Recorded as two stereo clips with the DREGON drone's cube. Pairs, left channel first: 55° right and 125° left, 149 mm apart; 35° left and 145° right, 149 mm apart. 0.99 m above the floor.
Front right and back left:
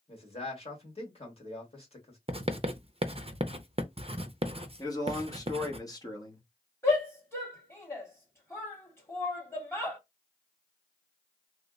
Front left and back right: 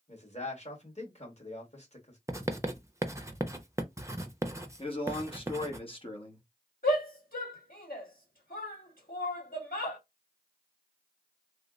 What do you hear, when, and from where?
0.1 s a man speaking: 5° right, 1.8 m
2.3 s writing: 150° left, 0.5 m
4.8 s a man speaking: straight ahead, 1.2 m
6.8 s a shout: 15° left, 2 m